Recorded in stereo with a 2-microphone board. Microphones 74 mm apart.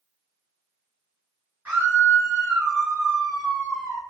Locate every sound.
1.6 s a scream: 20° right (ahead or behind), 1.8 m